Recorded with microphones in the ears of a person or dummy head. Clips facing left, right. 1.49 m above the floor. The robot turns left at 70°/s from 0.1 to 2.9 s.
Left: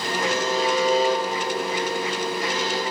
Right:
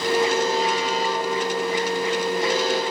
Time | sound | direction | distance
0.2 | a buzzer | 130° left | 1.3 m